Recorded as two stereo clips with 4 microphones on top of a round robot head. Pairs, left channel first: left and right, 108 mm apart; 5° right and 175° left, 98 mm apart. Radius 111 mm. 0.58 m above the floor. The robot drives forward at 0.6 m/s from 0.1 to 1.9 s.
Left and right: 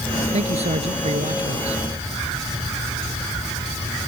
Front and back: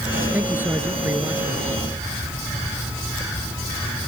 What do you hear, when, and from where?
0.3 s a man speaking: 110° right